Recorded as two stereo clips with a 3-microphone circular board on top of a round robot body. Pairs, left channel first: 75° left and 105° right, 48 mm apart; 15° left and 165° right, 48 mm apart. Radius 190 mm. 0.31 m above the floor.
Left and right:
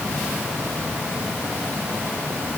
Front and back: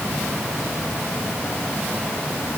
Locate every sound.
Only background noise.